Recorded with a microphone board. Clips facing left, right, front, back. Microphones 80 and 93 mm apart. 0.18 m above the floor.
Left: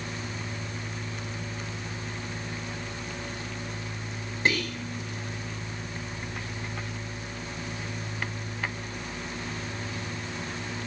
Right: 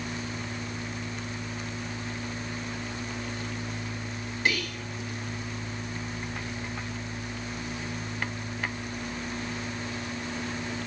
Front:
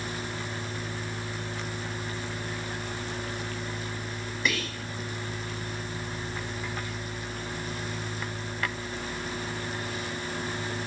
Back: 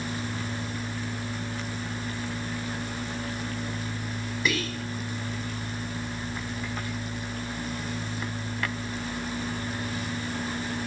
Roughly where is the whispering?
Left.